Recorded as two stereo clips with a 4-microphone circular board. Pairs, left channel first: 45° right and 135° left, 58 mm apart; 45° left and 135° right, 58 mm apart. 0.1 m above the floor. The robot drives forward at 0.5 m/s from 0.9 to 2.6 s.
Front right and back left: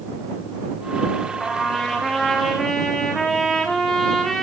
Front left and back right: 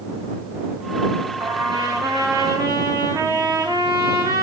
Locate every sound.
1.4 s a trumpet: 125° right, 2.5 m; by 4.4 s 135° right, 3 m